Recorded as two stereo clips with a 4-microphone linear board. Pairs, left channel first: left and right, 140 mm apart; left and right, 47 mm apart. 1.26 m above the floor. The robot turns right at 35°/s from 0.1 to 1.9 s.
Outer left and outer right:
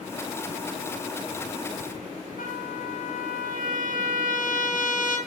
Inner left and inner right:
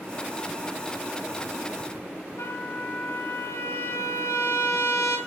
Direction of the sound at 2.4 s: 80° left.